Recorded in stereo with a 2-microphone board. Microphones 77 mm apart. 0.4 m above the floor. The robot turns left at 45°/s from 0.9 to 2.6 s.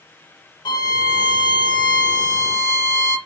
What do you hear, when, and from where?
0.7 s a violin: 110° left, 0.5 m; by 3.2 s 35° left, 0.5 m